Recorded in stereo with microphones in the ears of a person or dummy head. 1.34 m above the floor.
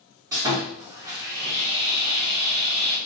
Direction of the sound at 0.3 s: 15° right (ahead or behind).